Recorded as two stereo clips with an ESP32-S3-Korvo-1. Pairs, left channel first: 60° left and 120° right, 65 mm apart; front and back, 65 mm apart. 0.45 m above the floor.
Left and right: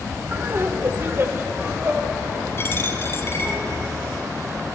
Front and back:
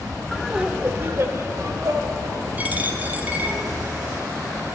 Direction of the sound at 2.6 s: 115° left.